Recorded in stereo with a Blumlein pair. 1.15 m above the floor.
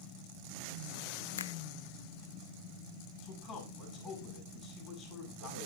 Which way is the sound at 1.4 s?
65° left.